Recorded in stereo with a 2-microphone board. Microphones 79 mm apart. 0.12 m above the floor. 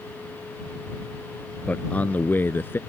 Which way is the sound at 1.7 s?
15° left (ahead or behind).